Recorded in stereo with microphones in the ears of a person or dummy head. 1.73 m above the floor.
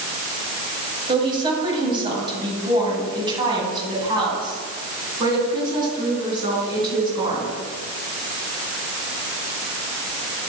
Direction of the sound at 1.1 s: 25° right (ahead or behind).